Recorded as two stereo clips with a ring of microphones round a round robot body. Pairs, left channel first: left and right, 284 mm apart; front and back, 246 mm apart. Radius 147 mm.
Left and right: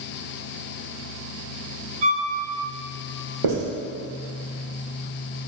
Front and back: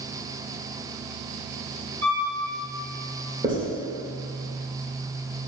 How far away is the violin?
About 2.5 m.